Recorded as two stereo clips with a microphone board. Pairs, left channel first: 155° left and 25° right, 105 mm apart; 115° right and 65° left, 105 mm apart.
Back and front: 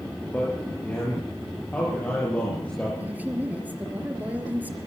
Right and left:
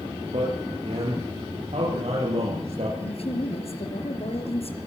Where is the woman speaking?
95° right, 4 m.